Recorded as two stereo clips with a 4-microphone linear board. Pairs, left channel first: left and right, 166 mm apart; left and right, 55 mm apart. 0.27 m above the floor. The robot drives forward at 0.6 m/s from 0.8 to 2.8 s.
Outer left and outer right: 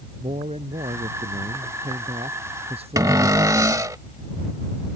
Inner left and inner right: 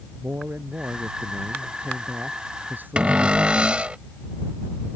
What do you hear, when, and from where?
0.2 s a man speaking: 45° right (ahead or behind); by 3.9 s 40° right (ahead or behind)
3.0 s a cupboard door: 20° right (ahead or behind)